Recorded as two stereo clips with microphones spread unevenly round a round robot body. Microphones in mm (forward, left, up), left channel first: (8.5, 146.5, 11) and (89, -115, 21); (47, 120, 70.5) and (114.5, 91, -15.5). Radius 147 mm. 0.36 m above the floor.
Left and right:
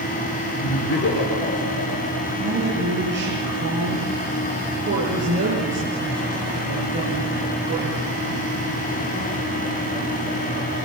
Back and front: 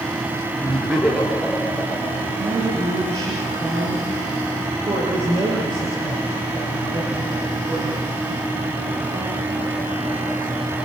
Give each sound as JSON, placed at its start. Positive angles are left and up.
{"t": 0.6, "sound": "laughter", "azimuth_deg": 55, "distance_m": 7.5}
{"t": 2.4, "sound": "a woman speaking", "azimuth_deg": -25, "distance_m": 6.5}